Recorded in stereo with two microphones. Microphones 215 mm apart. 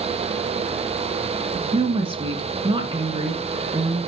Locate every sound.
1.7 s a woman speaking: 25° right (ahead or behind), 1.9 m